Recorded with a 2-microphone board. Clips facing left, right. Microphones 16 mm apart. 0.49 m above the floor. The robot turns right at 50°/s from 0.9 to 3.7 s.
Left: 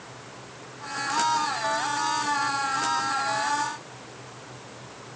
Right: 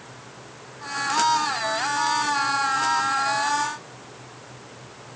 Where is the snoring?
No snoring in this recording.